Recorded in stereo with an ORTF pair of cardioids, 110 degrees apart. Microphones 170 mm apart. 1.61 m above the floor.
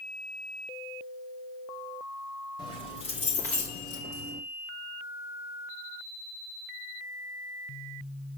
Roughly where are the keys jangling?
Ahead left.